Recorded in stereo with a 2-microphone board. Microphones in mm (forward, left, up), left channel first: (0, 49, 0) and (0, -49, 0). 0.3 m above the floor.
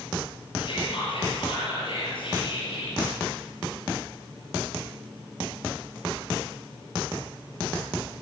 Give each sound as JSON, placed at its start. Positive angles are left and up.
{"t": 0.6, "sound": "whispering", "side_deg": 60, "distance_m": 8.0}